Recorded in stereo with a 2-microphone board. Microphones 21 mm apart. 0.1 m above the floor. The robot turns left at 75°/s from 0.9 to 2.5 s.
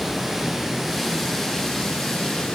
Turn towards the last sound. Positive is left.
turn(degrees=60)